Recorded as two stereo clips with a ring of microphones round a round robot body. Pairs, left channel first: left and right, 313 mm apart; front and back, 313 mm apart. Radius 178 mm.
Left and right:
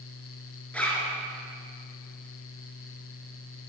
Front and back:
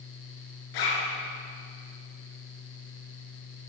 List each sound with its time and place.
0.7 s a zipper: 5° left, 2.5 m